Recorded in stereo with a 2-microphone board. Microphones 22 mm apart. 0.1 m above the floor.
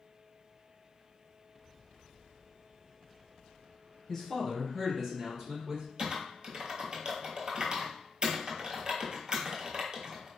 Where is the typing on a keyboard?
35° right (ahead or behind), 0.9 m.